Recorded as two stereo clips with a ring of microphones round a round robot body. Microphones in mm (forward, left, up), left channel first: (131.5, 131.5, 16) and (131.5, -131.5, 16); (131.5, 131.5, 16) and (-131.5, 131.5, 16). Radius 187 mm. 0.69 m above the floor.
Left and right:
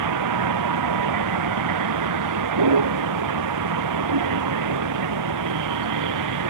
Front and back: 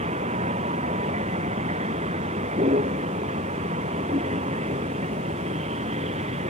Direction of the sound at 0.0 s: 105° right.